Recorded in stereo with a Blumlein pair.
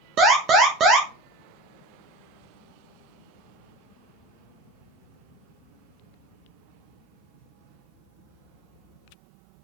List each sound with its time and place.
0.2 s an alarm: 30° right, 2.5 m